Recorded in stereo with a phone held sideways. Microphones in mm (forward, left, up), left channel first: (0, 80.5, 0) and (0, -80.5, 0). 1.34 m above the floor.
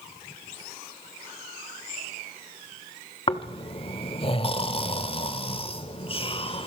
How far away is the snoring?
About 1.2 m.